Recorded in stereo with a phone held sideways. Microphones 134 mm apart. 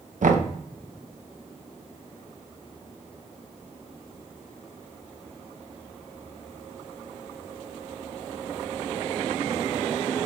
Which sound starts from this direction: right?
Knocking, at 0.2 s.